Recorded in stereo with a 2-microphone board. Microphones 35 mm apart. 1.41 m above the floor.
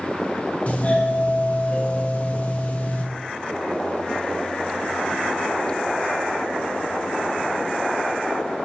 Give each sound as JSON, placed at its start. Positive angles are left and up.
{"t": 0.7, "sound": "a doorbell", "side_deg": 40, "distance_m": 2.0}